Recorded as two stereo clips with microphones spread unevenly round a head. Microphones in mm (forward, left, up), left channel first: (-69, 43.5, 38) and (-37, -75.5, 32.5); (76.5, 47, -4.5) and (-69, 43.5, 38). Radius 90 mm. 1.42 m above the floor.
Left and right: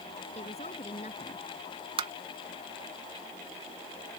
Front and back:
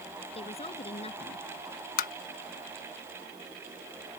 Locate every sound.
0.3 s a woman speaking: 50° left
2.0 s tapping: 20° right